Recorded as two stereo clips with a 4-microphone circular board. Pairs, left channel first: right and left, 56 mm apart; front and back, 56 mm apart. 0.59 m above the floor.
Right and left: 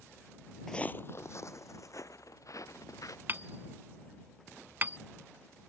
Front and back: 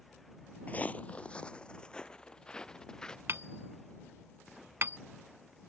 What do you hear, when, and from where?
0.7 s footsteps: 15° right; by 3.2 s 80° right
3.3 s hammering: 140° left